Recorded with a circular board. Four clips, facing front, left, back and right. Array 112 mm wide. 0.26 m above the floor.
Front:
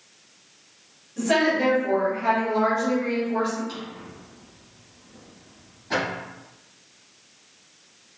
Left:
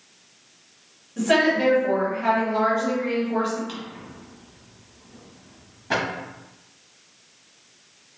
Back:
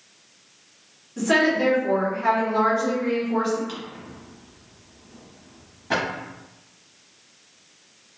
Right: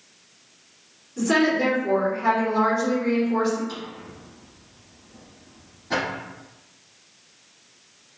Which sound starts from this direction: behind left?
A drawer, at 3.7 s.